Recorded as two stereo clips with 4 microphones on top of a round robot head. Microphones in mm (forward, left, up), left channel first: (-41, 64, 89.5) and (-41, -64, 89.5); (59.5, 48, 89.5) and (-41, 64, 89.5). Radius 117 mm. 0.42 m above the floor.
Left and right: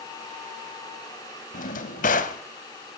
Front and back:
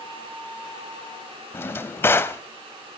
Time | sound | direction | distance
1.5 | a drawer | 60° left | 0.6 m